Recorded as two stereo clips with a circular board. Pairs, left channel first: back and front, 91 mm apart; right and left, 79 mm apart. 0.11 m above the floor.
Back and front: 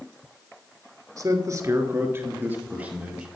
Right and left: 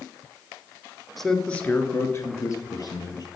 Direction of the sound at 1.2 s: 5° right.